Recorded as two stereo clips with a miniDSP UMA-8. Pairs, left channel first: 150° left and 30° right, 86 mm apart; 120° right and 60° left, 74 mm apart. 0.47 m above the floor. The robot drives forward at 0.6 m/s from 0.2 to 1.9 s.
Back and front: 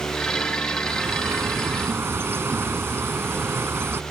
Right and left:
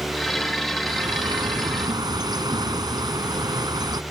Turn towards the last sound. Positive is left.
turn(degrees=35)